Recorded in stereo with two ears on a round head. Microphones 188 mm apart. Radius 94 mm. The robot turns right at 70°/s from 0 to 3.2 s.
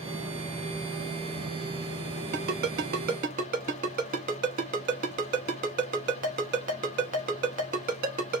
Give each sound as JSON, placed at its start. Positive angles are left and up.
{"t": 2.3, "sound": "a ringtone", "side_deg": -40, "distance_m": 0.9}